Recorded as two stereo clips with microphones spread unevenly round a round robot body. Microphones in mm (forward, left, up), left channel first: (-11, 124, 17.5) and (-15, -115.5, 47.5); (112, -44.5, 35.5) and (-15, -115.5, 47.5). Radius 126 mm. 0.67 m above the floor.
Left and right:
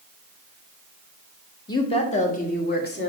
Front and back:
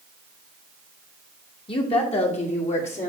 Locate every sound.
1.7 s a woman speaking: 35° left, 1.3 m; by 3.1 s 55° left, 2 m